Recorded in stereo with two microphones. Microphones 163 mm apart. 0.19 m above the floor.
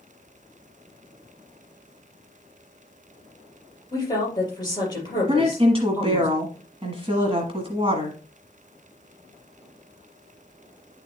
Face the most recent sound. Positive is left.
turn(degrees=-35)  # may be behind; listen again after turning